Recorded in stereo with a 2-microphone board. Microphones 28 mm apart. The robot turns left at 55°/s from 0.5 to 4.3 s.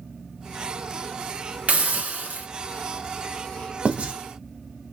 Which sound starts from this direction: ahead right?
A hiss, at 1.7 s.